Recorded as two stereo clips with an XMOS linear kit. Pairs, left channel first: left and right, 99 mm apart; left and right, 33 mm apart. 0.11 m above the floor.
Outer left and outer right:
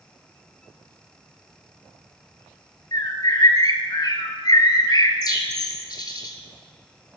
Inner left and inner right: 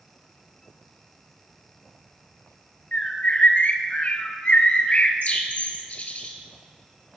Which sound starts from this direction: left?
A bird, at 2.9 s.